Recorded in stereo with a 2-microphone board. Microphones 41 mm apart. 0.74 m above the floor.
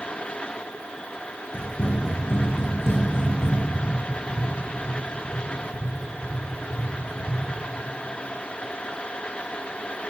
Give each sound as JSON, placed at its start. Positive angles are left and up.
{"t": 1.5, "sound": "running footsteps", "side_deg": 60, "distance_m": 2.0}
{"t": 3.8, "sound": "tapping", "side_deg": 0, "distance_m": 2.5}